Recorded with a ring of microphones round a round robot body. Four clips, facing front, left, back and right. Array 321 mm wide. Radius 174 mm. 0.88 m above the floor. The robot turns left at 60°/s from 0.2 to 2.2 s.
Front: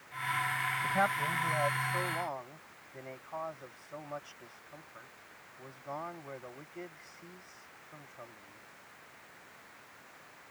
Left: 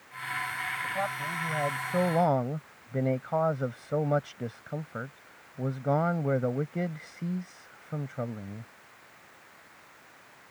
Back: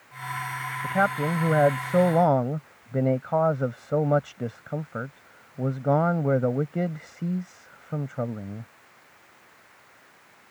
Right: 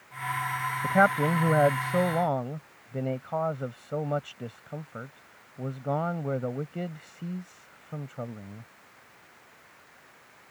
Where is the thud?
No thud in this recording.